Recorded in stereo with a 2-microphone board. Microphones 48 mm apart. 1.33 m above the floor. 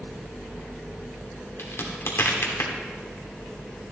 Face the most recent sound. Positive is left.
turn(degrees=65)  # may be behind; listen again after turning